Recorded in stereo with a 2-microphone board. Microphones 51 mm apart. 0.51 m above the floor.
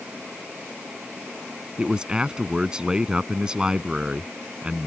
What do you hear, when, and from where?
1.8 s a man speaking: 15° right (ahead or behind)